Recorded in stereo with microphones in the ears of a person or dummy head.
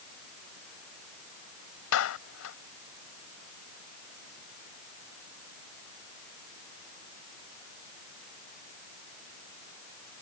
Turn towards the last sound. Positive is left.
turn(degrees=80)